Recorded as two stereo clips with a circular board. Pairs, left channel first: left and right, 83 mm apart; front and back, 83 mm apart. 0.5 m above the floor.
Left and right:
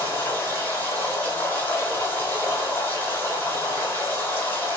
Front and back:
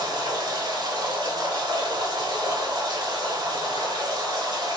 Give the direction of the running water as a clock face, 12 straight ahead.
7 o'clock.